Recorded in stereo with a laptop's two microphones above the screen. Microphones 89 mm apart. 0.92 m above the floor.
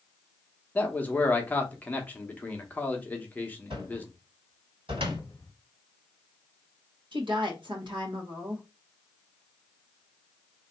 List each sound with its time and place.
0.8 s a man speaking: 20° left (ahead or behind), 0.8 m
3.7 s a cupboard door: 80° right, 2.5 m
5.0 s a cupboard door: 40° left (ahead or behind), 0.9 m
7.1 s a woman speaking: 60° right (ahead or behind), 1.5 m